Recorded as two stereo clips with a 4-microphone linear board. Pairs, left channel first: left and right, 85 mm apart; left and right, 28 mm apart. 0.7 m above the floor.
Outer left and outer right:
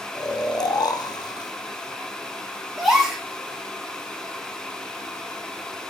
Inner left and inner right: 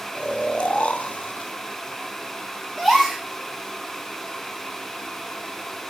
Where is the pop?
I don't hear a pop.